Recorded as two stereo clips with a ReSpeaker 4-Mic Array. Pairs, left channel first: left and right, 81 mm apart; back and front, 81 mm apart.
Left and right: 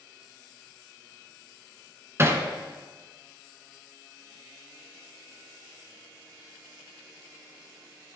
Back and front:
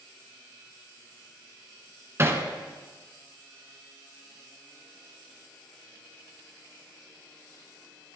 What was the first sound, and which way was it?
Hammering, 45° right.